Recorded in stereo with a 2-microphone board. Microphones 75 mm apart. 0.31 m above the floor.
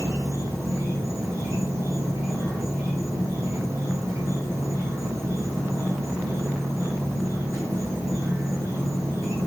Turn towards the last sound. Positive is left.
turn(degrees=-35)  # may be behind; listen again after turning